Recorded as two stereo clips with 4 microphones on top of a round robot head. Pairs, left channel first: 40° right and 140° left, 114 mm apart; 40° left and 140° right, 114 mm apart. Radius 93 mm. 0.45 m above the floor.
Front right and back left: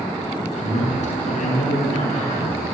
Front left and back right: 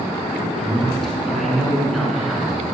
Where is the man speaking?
45° right, 7 m; by 2.7 s 50° right, 5.5 m.